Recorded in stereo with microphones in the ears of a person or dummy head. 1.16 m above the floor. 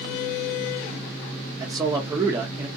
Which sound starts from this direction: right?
A man speaking, at 1.6 s.